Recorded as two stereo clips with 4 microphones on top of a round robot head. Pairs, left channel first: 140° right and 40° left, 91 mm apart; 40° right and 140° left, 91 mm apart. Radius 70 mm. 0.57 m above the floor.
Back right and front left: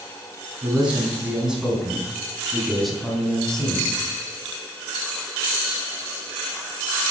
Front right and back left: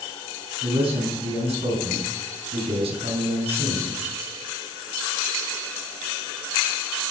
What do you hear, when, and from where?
0.6 s a man speaking: 120° left, 4.5 m; by 4.0 s 140° left, 3.5 m